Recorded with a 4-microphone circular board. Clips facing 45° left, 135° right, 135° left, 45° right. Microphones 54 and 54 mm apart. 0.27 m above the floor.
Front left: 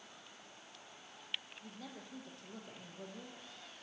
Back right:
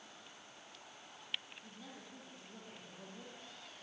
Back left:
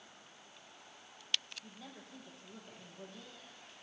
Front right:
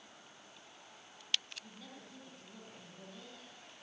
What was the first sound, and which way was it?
A woman speaking, 55° left.